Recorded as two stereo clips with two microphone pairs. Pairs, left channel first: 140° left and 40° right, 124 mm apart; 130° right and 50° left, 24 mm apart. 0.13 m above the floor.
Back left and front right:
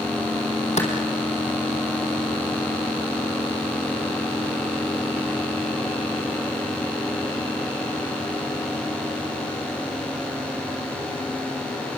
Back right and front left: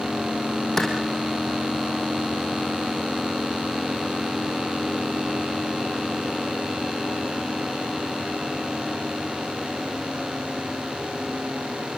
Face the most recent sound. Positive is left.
turn(degrees=160)